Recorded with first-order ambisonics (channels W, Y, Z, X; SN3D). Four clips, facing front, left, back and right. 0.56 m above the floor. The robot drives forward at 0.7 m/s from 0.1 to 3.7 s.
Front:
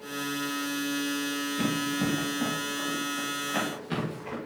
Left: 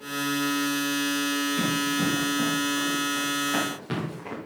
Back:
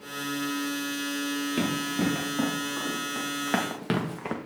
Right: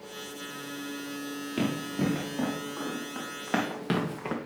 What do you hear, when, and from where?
1.6 s running footsteps: 165° right, 4.5 m; by 4.4 s 150° right, 2.0 m